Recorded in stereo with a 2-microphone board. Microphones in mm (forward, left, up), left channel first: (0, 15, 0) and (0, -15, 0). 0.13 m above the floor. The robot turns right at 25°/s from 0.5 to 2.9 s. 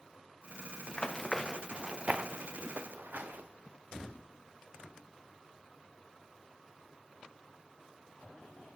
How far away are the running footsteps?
About 1.0 m.